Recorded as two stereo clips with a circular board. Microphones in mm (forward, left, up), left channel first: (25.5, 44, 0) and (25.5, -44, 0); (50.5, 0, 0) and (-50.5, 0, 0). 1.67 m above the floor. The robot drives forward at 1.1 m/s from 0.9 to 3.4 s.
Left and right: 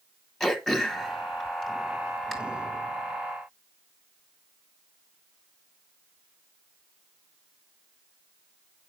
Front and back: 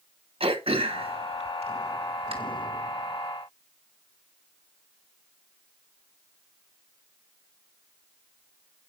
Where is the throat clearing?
Straight behind, 1.4 m.